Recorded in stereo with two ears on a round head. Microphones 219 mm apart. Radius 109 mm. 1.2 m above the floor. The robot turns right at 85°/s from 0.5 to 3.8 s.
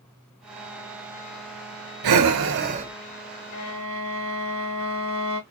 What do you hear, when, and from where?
2.0 s breathing: 90° right, 0.7 m; by 2.9 s 15° right, 0.7 m
3.5 s a violin: 75° left (ahead or behind), 2.5 m; by 5.4 s 60° left (ahead or behind), 2.5 m